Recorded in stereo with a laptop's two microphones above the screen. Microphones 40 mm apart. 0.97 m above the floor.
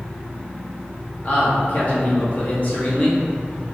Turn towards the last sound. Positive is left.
turn(degrees=40)  # may be behind; listen again after turning